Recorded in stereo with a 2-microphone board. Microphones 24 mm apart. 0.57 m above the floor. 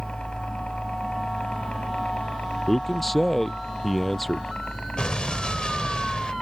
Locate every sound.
0.0 s a helicopter: 50° left (ahead or behind); by 6.4 s 65° left (ahead or behind)
2.7 s a man speaking: 15° left (ahead or behind)
5.0 s an explosion: 40° left (ahead or behind)